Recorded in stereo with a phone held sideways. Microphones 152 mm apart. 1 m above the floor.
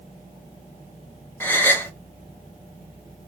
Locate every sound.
1.4 s a gasp: 15° left (ahead or behind), 0.6 m